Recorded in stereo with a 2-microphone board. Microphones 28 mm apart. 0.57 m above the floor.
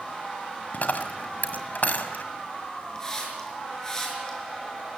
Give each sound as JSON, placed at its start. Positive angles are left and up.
{"t": 0.7, "sound": "a dropped coin", "side_deg": 65, "distance_m": 1.6}
{"t": 3.0, "sound": "a hiss", "side_deg": 25, "distance_m": 5.5}